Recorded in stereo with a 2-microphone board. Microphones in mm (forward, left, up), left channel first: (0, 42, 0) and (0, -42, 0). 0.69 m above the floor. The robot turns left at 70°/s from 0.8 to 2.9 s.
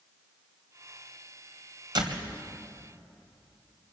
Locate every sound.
1.9 s a door slam: 65° right (ahead or behind), 2.5 m; by 2.3 s 85° right, 2.5 m